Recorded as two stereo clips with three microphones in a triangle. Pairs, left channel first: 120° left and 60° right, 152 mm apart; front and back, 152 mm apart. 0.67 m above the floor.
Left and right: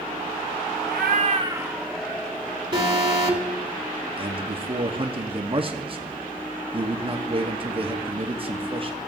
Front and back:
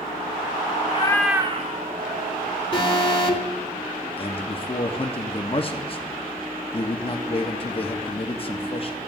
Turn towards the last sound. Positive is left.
turn(degrees=-30)